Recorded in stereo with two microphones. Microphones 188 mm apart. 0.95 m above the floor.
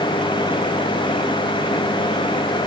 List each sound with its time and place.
Only background noise.